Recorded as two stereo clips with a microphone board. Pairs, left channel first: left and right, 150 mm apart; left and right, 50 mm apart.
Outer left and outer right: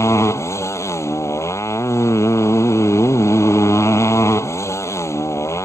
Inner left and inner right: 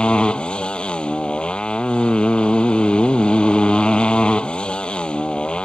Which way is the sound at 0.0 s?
20° left (ahead or behind).